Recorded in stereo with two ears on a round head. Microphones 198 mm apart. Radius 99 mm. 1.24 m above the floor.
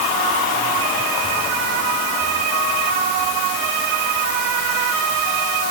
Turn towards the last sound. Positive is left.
No sound to turn to.